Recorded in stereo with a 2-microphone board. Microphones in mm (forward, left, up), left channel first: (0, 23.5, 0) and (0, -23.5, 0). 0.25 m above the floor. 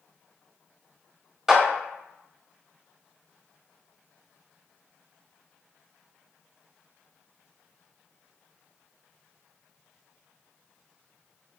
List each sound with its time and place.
1.5 s a clap: 10° right (ahead or behind), 0.7 m